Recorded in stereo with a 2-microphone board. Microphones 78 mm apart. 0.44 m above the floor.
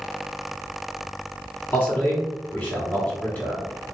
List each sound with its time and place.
1.7 s a man speaking: 25° left (ahead or behind), 1.5 m